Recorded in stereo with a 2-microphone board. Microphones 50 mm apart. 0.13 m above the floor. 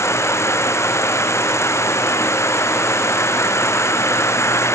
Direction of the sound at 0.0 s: 70° left (ahead or behind).